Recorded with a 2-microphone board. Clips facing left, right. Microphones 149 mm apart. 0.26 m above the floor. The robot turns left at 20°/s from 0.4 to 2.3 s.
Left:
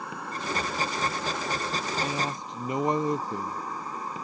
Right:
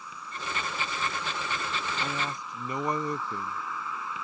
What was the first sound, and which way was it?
An insect, 85° left.